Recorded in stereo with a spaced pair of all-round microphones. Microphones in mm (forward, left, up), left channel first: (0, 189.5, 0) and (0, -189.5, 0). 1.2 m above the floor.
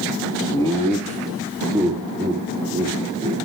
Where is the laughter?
15° left (ahead or behind), 2 m; by 3.4 s 20° right (ahead or behind), 4 m.